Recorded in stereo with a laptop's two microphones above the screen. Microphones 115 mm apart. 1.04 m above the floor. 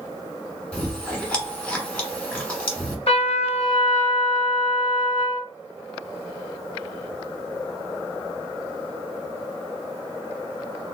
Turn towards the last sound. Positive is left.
turn(degrees=60)  # may be behind; listen again after turning